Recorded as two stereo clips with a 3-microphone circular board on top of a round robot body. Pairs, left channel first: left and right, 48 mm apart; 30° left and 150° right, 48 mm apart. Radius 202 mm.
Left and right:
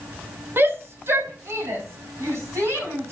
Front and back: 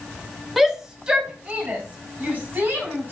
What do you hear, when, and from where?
0.6 s a shout: 65° right, 2.5 m; by 3.1 s 105° right, 5.5 m